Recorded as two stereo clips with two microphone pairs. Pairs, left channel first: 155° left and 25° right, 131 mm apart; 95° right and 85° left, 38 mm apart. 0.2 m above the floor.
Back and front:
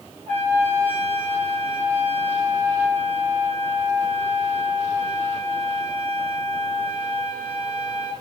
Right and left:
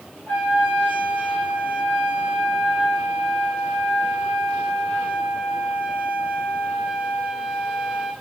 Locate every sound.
0.3 s a trumpet: 60° right, 2.5 m